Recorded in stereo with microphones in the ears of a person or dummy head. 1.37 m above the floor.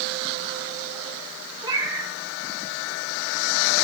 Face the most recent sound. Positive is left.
turn(degrees=-25)  # may be behind; listen again after turning